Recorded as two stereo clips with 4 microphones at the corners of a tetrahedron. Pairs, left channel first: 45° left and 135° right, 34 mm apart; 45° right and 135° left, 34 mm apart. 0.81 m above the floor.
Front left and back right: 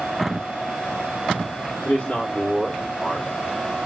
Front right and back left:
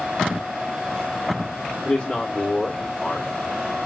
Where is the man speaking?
Straight ahead, 2 m.